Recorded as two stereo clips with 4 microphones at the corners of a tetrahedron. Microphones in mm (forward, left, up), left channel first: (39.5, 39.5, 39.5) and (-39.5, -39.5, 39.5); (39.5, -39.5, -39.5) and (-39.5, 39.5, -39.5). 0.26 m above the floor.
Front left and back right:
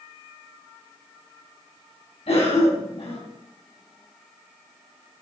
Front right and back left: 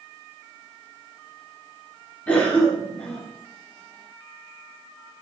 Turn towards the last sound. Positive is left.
turn(degrees=25)